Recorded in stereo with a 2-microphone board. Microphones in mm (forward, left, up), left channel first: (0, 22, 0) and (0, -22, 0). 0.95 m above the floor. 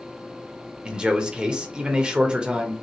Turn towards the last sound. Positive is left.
turn(degrees=-20)  # may be behind; listen again after turning